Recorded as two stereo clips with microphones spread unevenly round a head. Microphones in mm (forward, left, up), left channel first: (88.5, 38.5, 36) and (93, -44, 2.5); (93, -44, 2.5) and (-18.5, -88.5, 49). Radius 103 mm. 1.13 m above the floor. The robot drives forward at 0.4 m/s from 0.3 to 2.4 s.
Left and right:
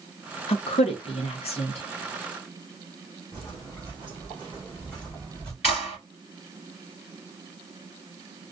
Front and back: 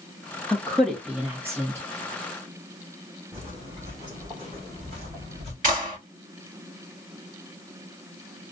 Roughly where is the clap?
Behind left.